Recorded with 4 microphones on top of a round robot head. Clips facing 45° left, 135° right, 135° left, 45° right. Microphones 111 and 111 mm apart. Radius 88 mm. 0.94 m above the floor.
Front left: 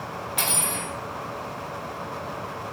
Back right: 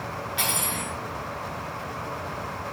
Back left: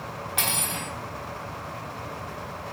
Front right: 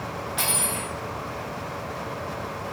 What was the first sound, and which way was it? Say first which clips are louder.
Cutlery clinking: front left 1 dB, front right 1 dB; 95° left.